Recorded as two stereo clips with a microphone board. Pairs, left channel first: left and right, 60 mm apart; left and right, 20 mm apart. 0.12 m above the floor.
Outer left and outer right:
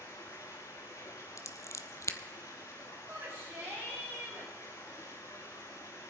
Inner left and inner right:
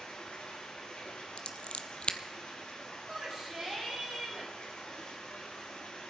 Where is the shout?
35° right (ahead or behind), 6.5 m.